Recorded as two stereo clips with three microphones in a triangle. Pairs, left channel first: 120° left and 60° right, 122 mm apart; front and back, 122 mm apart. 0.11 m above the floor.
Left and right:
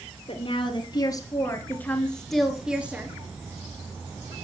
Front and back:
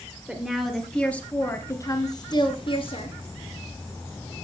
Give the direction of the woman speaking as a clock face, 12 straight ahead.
9 o'clock.